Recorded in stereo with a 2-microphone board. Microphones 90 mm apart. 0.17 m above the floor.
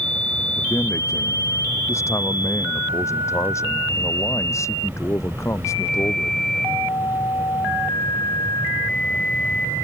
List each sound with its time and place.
0.6 s a man speaking: 35° left (ahead or behind)